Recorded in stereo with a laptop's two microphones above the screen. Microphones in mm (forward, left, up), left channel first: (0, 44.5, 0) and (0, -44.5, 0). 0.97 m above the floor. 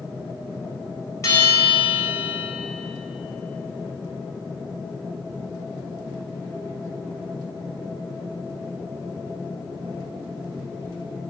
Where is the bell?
35° left (ahead or behind), 4 m.